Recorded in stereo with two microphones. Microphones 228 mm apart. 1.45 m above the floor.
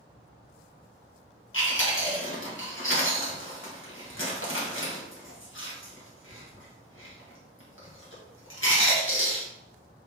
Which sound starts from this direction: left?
Chewing, at 1.5 s.